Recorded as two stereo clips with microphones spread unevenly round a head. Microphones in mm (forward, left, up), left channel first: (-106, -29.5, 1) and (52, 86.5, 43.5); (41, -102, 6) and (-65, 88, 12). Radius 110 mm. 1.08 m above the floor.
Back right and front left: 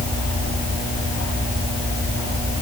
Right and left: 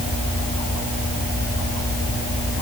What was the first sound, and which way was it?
Only background noise.